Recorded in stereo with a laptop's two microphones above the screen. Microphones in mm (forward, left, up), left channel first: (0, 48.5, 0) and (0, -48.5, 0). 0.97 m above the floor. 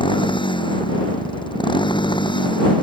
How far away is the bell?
No bell in this recording.